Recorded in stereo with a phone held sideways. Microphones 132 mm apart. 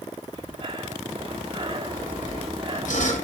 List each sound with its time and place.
0.3 s breathing: 45° right (ahead or behind), 2 m
1.9 s sawing: 75° left (ahead or behind), 6.5 m